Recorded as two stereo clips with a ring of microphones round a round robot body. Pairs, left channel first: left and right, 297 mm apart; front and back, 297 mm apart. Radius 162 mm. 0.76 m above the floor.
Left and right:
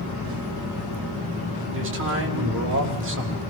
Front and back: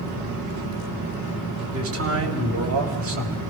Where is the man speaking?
140° right, 5 m.